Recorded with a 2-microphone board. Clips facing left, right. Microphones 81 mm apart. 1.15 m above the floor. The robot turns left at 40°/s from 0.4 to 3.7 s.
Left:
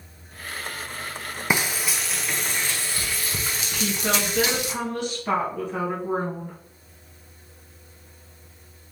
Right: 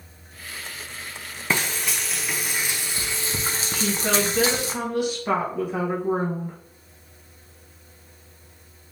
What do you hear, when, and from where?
1.5 s frying: 25° left, 0.7 m; by 4.7 s 65° right, 0.7 m
3.7 s a woman speaking: 10° right (ahead or behind), 1.2 m